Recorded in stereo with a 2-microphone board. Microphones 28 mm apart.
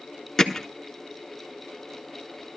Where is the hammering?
10° left (ahead or behind), 1.2 m.